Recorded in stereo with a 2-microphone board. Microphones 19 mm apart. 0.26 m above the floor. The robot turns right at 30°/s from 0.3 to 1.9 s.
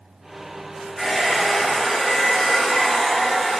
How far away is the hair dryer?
About 1.9 m.